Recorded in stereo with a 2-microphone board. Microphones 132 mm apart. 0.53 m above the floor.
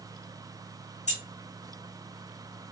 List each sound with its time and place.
1.1 s keys jangling: 60° left (ahead or behind), 1.3 m